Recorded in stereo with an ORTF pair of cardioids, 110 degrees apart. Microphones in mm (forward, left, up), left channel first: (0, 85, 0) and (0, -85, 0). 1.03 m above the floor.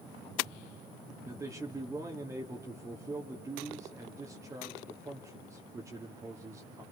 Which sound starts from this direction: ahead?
A man speaking, at 1.2 s.